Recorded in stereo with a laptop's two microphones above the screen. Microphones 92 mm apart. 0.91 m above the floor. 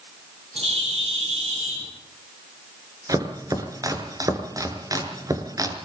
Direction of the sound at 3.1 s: 40° right (ahead or behind).